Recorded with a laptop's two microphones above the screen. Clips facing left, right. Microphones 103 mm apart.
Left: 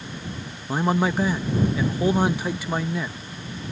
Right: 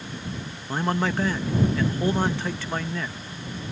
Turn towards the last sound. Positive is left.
turn(degrees=10)  # may be behind; listen again after turning